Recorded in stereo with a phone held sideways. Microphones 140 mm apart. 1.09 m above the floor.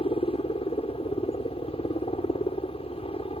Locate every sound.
0.0 s a helicopter: 45° left (ahead or behind)